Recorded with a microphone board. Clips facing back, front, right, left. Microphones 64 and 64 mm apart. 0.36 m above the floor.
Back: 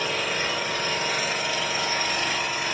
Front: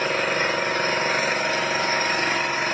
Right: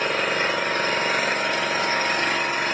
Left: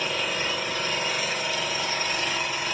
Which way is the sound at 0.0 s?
50° right.